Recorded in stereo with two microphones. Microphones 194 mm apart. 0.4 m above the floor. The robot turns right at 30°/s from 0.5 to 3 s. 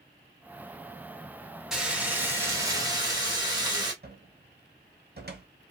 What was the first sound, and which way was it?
Frying, 175° right.